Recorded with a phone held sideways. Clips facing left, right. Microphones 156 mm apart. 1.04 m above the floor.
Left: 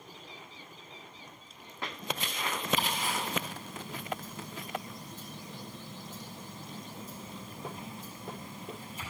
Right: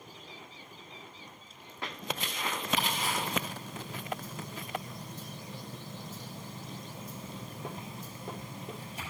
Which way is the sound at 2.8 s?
75° right (ahead or behind).